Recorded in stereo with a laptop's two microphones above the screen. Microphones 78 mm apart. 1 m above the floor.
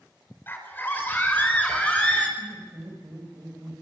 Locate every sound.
0.5 s a scream: 25° left (ahead or behind), 4.5 m; by 2.3 s 15° left (ahead or behind), 6 m
2.4 s laughter: 55° right (ahead or behind), 6 m